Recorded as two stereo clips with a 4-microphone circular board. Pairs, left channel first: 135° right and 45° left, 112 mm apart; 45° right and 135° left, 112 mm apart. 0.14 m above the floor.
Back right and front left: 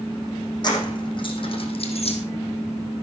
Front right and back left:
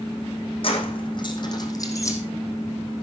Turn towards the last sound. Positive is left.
turn(degrees=-110)